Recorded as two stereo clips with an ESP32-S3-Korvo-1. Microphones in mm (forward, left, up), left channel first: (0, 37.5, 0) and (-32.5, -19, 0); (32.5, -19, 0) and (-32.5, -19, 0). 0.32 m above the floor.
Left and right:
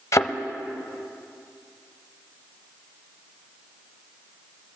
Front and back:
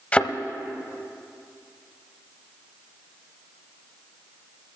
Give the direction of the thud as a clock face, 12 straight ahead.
10 o'clock.